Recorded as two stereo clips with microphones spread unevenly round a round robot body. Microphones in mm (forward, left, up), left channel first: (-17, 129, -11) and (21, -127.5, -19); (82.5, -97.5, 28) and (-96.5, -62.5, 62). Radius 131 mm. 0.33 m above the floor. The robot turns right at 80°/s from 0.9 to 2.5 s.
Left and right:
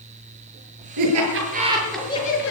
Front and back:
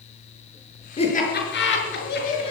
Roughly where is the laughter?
Right.